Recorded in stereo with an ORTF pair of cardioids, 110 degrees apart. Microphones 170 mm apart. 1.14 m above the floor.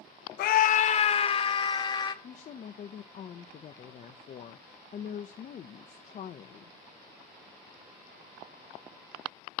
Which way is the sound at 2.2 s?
45° left.